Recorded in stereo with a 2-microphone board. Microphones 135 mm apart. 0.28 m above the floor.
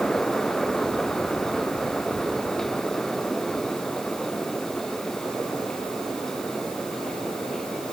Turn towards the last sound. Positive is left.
No sound to turn to.